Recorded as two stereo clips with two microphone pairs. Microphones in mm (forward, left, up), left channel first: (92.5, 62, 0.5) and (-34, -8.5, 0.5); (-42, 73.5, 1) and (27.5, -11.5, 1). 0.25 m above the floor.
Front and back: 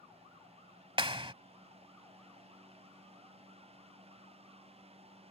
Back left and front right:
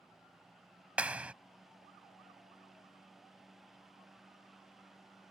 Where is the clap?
125° right.